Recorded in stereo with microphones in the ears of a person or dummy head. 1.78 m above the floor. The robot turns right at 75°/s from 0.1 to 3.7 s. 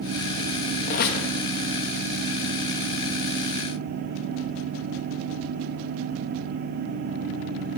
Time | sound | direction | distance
0.8 | a squeak | 50° left | 1.9 m